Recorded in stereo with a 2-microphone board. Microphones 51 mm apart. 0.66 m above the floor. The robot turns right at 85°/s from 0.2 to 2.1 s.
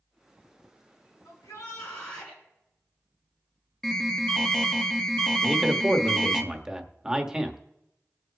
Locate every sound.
1.2 s a shout: 85° left, 6.5 m; by 2.4 s 160° left, 6.5 m
3.8 s an alarm: 15° left (ahead or behind), 1.0 m
5.4 s a man speaking: 15° right (ahead or behind), 1.1 m